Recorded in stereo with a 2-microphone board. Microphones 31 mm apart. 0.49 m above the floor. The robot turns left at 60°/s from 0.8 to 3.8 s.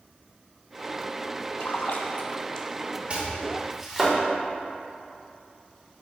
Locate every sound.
1.6 s a splash: 80° left, 0.7 m; by 2.7 s 30° left (ahead or behind), 0.7 m
3.1 s chopping: 40° right (ahead or behind), 1.9 m; by 4.2 s 10° right (ahead or behind), 1.9 m